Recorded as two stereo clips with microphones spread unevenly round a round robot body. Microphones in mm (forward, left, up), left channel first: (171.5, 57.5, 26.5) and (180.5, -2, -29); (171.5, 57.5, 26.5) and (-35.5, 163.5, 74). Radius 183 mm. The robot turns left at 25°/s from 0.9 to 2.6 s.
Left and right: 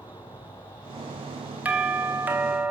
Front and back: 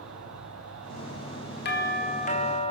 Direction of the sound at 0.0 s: 135° left.